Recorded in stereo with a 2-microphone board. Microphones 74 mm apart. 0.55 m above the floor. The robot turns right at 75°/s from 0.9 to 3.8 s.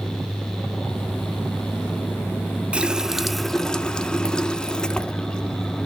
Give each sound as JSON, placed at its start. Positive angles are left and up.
{"t": 2.7, "sound": "a running tap", "side_deg": -15, "distance_m": 0.5}